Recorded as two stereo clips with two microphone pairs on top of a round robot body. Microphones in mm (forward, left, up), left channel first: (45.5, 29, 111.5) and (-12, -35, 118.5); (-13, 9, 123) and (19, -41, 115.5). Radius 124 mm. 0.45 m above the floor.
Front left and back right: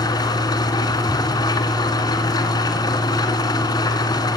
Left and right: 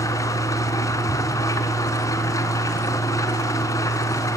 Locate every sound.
0.0 s an engine running: 95° left, 2 m